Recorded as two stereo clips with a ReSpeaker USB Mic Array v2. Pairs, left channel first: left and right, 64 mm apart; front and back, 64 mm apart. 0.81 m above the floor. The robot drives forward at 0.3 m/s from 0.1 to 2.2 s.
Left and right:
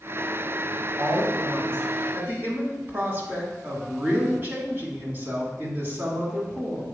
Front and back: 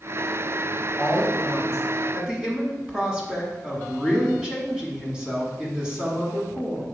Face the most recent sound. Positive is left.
turn(degrees=-115)